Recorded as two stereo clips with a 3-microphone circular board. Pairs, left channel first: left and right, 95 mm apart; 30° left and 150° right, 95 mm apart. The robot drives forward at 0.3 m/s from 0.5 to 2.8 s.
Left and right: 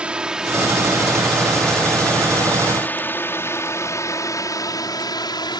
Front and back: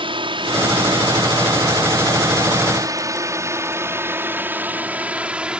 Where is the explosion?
No explosion in this recording.